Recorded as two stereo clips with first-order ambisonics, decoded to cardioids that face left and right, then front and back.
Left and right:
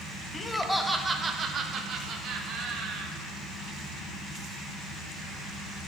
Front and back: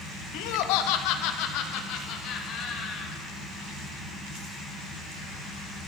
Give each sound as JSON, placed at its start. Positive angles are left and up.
{"t": 0.3, "sound": "laughter", "azimuth_deg": 20, "distance_m": 0.7}